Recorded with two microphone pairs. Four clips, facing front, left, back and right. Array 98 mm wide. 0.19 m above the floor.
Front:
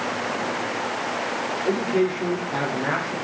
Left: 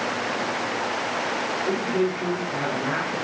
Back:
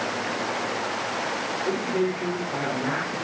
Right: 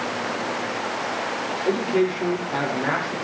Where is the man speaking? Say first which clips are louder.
Right 4 dB, front 4 dB; 80° right, 6.5 m.